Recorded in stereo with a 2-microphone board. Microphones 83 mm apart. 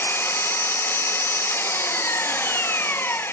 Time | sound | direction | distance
0.0 | an engine running | 25° left (ahead or behind) | 0.9 m